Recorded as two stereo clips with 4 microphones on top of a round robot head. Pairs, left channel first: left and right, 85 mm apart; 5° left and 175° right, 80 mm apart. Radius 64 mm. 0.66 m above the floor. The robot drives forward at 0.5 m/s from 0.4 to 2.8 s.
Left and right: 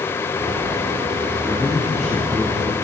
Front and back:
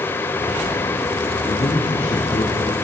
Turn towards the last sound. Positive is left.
turn(degrees=-5)